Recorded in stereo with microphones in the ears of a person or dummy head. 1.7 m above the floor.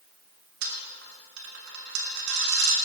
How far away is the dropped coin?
About 2.5 m.